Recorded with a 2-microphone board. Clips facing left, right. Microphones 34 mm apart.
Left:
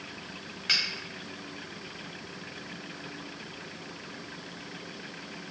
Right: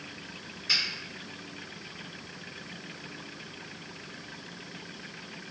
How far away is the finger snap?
About 1.3 m.